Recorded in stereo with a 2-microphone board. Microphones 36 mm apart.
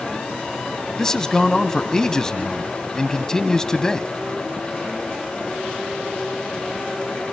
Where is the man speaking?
15° left (ahead or behind), 1.0 m.